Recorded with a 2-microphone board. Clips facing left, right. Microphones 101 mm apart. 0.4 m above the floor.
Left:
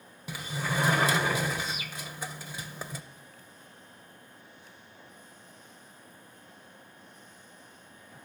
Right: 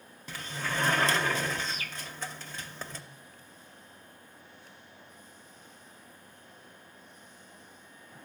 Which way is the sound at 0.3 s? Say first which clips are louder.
Left 2 dB; 10° left (ahead or behind).